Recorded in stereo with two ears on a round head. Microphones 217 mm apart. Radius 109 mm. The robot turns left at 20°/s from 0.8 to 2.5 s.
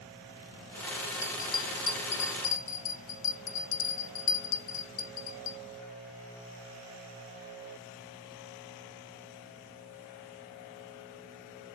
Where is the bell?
10° left (ahead or behind), 0.6 m; by 5.6 s 35° left (ahead or behind), 0.6 m.